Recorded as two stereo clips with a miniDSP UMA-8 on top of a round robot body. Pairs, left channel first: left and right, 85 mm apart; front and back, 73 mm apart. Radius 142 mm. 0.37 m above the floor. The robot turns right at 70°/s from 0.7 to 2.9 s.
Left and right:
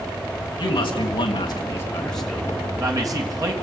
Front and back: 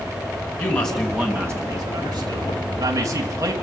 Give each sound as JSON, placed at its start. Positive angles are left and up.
{"t": 0.6, "sound": "a man speaking", "azimuth_deg": 70, "distance_m": 3.5}